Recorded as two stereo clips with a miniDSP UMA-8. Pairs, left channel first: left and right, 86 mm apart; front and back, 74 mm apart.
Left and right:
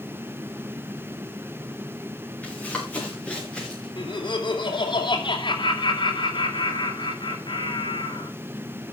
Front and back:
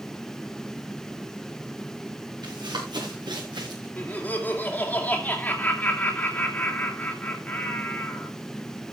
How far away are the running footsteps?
About 6 m.